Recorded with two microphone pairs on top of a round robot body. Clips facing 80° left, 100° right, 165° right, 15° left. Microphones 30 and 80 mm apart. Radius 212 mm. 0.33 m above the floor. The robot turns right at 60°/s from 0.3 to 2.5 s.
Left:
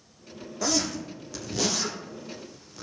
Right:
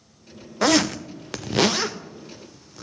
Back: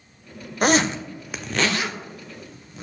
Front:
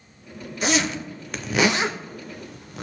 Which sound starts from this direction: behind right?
A zipper, at 0.6 s.